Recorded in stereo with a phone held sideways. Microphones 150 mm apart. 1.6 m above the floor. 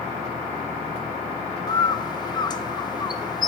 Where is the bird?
25° left (ahead or behind), 0.8 m.